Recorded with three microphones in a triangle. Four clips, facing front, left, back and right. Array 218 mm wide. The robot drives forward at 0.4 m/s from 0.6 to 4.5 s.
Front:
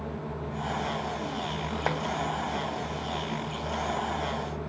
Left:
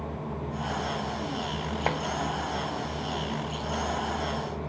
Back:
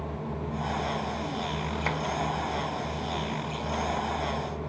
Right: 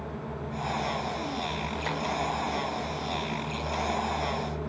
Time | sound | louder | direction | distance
1.9 | tapping | left 6 dB, front 3 dB | 55° left | 0.7 m